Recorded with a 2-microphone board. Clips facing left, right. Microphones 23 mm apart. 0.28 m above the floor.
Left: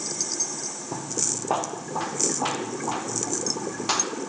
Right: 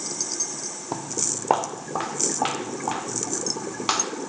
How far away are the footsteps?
About 0.5 m.